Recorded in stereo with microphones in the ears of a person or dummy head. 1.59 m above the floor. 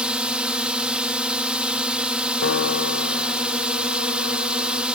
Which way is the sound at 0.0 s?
5° right (ahead or behind).